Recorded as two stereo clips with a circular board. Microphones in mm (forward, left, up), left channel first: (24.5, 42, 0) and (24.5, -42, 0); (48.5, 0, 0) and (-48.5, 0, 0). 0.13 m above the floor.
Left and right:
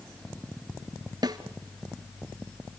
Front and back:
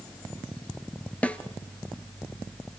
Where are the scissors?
I don't hear scissors.